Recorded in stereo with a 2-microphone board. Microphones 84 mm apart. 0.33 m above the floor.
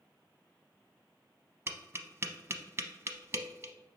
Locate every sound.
1.7 s tapping: 35° right (ahead or behind), 0.6 m